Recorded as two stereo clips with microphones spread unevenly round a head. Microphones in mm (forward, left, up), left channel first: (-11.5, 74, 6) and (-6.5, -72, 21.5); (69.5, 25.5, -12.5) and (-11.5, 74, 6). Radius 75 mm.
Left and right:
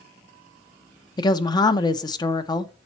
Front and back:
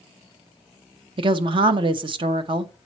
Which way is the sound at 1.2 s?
135° left.